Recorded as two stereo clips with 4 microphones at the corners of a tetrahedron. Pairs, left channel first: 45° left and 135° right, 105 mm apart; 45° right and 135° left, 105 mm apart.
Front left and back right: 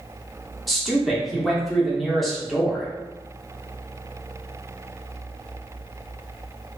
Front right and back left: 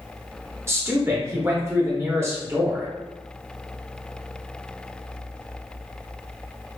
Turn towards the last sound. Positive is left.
turn(degrees=135)